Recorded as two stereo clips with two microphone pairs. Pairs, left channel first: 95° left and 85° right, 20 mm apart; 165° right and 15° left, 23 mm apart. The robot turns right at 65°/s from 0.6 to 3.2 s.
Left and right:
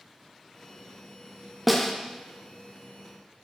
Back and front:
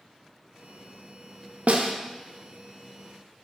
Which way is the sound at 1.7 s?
Straight ahead.